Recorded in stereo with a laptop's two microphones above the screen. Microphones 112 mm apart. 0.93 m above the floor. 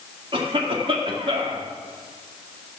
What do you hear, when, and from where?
0.3 s a cough: 50° right (ahead or behind), 2 m